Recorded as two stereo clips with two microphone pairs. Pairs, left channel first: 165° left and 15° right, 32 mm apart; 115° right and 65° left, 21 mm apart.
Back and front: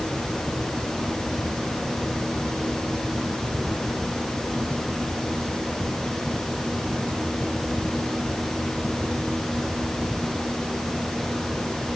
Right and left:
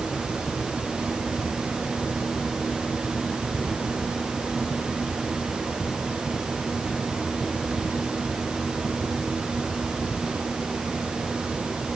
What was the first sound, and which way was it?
Only background noise.